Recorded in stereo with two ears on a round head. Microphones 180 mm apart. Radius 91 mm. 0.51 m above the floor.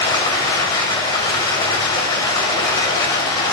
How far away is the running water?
About 1.3 m.